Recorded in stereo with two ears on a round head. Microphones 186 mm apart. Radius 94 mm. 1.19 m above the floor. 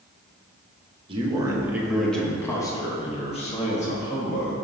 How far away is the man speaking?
About 1.1 m.